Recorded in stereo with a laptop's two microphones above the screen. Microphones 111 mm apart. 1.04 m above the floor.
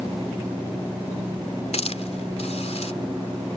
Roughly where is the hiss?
Left.